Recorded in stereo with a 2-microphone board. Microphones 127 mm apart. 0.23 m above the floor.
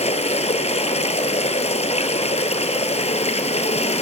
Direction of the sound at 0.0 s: 55° left (ahead or behind).